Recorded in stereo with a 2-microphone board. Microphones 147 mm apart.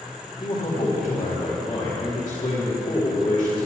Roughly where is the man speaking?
Left.